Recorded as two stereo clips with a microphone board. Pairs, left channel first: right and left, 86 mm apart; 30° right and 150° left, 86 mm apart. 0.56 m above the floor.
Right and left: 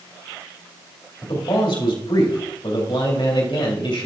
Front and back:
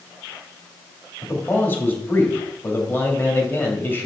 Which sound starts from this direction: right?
A man speaking, at 1.2 s.